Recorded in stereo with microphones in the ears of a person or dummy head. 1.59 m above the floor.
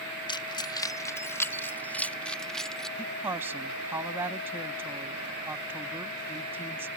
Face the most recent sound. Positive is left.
turn(degrees=-10)  # may be behind; listen again after turning